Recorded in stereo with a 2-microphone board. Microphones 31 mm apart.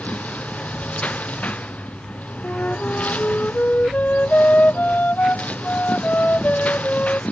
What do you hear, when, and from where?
0.0 s a lawn mower: 50° left (ahead or behind)
2.4 s a flute: 60° left (ahead or behind)